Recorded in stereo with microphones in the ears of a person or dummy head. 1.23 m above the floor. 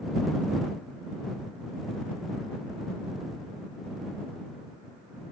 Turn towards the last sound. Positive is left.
No sound to turn to.